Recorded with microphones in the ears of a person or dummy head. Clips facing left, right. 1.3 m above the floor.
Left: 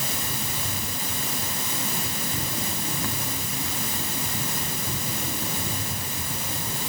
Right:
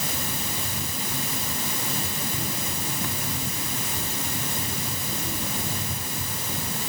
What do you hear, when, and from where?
Only background noise.